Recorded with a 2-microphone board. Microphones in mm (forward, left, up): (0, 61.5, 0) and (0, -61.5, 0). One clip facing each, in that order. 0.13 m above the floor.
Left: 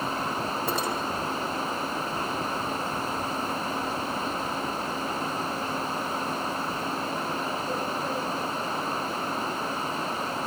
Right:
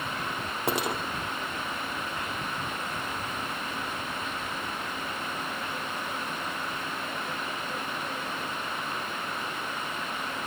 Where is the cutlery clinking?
75° right (ahead or behind), 2.5 m.